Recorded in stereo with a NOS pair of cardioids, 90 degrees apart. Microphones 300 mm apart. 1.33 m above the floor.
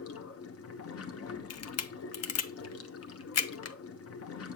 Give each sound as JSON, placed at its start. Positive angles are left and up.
{"t": 0.0, "sound": "running water", "azimuth_deg": 50, "distance_m": 1.1}
{"t": 1.5, "sound": "a camera shutter", "azimuth_deg": 55, "distance_m": 0.9}